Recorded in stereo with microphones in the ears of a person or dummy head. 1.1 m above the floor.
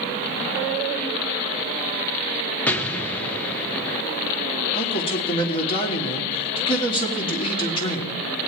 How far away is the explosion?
About 0.6 m.